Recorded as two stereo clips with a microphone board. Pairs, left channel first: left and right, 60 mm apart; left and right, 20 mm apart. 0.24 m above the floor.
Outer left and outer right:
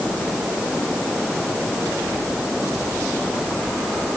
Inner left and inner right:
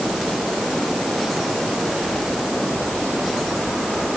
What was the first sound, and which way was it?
Only background noise.